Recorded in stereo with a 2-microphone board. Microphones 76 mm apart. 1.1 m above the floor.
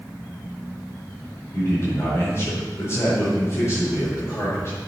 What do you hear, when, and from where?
1.5 s a man speaking: 45° left (ahead or behind), 5 m